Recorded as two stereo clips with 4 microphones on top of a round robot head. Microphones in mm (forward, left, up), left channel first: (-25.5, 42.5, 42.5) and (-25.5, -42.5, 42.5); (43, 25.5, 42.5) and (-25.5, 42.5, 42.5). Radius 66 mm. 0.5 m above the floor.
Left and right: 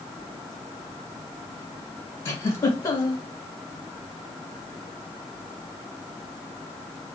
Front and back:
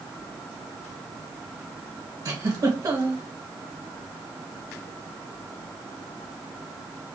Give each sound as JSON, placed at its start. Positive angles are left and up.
{"t": 2.2, "sound": "a giggle", "azimuth_deg": 140, "distance_m": 1.3}